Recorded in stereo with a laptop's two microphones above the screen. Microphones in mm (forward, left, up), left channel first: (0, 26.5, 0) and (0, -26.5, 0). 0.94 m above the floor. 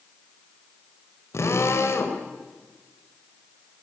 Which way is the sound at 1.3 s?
65° left (ahead or behind).